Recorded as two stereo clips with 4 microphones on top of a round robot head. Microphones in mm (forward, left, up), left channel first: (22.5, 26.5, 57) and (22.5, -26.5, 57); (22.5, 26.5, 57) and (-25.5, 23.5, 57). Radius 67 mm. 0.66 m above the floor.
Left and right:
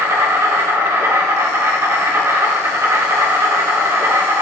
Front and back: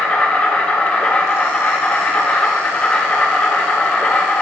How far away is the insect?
About 1.7 m.